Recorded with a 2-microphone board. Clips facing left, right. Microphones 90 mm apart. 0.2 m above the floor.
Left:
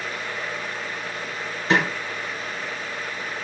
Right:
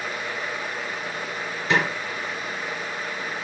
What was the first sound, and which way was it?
A snare drum, 35° left (ahead or behind).